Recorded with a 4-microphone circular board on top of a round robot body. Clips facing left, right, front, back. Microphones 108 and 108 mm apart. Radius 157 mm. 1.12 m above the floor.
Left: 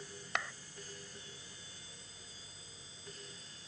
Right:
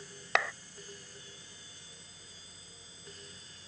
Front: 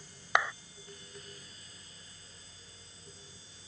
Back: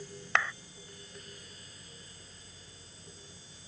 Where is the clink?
No clink in this recording.